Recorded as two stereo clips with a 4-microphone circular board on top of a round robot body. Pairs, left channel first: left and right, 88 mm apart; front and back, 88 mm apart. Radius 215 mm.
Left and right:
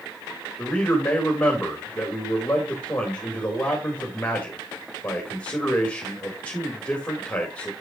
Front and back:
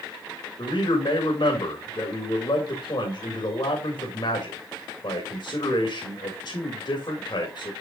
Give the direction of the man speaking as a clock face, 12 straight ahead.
11 o'clock.